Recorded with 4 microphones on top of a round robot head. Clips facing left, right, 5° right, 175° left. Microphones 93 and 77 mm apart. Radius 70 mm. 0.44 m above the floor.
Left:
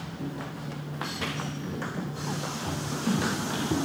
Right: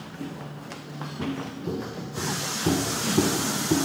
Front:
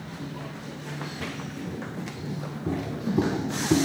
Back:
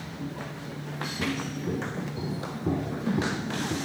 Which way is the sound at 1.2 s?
140° right.